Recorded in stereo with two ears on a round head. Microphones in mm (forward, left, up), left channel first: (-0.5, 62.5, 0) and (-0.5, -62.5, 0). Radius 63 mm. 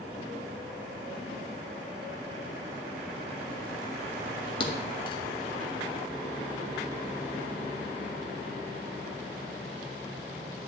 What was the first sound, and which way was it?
A thud, 35° left (ahead or behind).